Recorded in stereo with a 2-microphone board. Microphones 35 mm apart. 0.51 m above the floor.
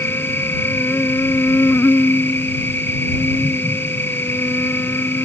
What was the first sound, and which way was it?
An insect, 85° left.